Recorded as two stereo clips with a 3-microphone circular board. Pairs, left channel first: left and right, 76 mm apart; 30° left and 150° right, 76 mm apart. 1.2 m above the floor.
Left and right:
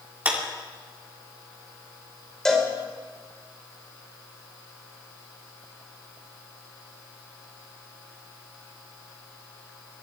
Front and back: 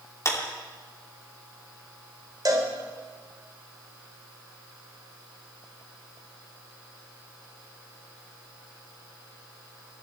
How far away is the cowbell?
About 3.5 m.